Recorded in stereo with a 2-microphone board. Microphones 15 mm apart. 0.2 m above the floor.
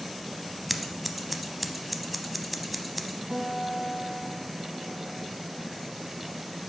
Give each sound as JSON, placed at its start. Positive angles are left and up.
{"t": 0.7, "sound": "scissors", "side_deg": -5, "distance_m": 0.5}
{"t": 3.3, "sound": "a guitar", "side_deg": -25, "distance_m": 1.4}